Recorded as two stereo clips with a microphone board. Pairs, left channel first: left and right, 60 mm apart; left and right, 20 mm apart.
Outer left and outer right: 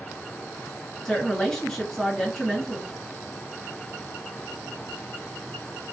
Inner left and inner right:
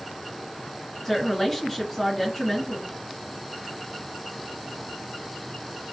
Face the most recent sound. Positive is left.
turn(degrees=15)  # may be behind; listen again after turning